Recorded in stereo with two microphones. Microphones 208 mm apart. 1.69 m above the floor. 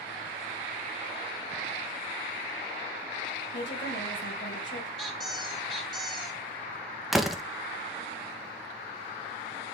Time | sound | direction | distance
3.5 | a woman speaking | 60° left (ahead or behind) | 1.9 m
5.0 | a squeak | centre (ahead or behind) | 1.2 m
7.1 | a door slam | centre (ahead or behind) | 0.7 m